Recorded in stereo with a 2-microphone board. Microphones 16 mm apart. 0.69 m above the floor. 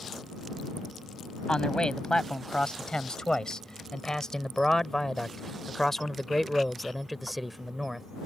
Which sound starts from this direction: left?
A man speaking, at 1.5 s.